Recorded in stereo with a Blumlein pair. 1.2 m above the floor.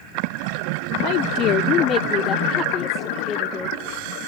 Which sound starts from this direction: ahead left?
A woman speaking, at 1.0 s.